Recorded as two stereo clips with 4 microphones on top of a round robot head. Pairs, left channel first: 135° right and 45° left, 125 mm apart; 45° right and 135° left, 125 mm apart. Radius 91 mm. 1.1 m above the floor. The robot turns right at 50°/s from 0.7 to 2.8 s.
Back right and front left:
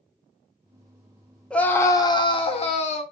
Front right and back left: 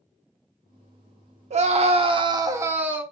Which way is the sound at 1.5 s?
145° left.